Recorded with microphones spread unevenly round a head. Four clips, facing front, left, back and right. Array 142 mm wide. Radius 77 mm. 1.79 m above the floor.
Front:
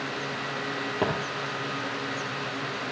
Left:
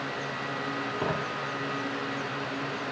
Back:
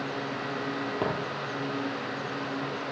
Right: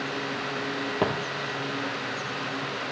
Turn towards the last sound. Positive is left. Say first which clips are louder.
# right 5 dB, front 3 dB
turn(degrees=-95)